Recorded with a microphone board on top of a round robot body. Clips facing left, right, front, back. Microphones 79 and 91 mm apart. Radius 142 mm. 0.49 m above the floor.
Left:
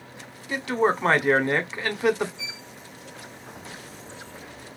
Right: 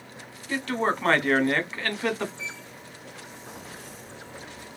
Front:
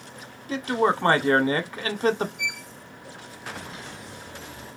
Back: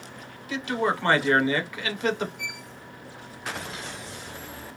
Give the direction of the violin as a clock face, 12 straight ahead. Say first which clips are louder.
Right 2 dB, front 4 dB; 8 o'clock.